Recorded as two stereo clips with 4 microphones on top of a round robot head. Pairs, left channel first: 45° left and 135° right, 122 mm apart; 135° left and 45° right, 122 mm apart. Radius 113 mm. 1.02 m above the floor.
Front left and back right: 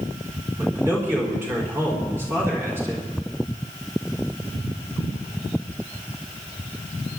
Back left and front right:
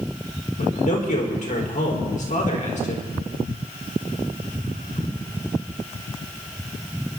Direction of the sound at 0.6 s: 155° left.